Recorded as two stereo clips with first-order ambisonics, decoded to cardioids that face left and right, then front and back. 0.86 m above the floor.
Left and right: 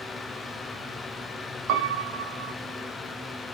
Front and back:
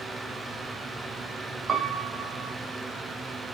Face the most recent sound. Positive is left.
turn(degrees=-115)